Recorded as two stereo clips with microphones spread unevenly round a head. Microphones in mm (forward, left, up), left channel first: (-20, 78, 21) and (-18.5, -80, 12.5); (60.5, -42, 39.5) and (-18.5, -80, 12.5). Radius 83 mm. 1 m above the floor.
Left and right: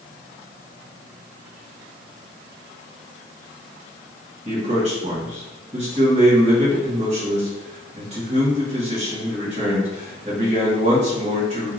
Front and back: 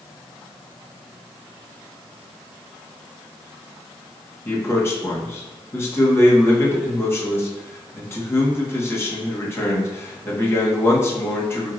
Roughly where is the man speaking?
Ahead right.